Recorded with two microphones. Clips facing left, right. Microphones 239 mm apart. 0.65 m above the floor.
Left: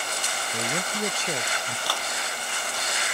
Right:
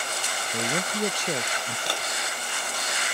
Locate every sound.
0.5 s a man speaking: 15° right (ahead or behind)
1.9 s a clap: 25° right (ahead or behind)